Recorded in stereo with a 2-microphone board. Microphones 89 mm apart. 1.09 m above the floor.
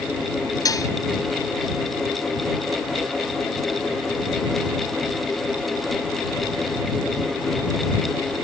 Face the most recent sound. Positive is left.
turn(degrees=40)  # may be behind; listen again after turning